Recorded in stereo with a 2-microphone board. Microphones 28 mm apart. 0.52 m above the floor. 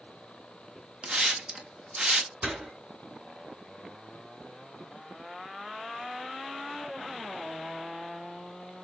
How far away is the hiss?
About 1.1 m.